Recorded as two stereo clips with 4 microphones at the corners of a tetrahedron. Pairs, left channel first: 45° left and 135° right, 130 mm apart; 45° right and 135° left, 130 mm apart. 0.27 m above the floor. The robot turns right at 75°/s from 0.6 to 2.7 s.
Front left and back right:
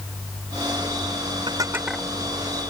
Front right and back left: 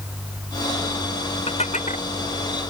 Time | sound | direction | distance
1.5 | dishes clattering | 85° right | ?